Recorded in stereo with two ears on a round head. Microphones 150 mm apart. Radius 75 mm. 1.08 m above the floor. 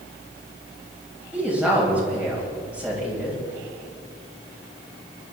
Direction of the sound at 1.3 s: 5° right (ahead or behind).